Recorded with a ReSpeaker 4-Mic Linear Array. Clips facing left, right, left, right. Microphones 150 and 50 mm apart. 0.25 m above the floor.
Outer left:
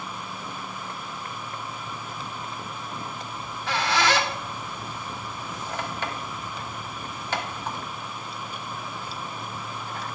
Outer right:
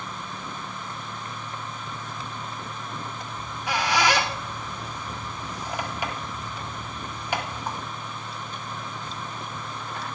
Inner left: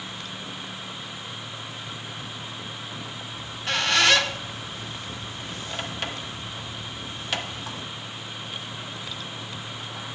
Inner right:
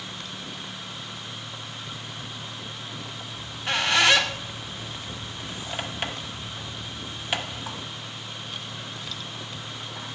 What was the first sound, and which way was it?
A squeak, 15° right (ahead or behind).